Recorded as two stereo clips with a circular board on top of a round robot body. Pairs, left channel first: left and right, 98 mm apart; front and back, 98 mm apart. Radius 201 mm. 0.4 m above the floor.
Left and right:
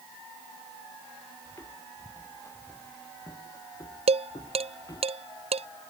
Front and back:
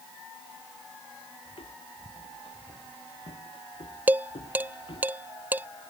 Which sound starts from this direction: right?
Dishes clattering, at 4.1 s.